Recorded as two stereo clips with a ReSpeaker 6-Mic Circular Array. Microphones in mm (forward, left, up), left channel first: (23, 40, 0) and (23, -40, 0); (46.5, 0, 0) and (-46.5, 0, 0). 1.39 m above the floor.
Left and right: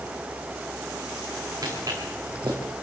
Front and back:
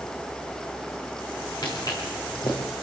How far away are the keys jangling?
I don't hear keys jangling.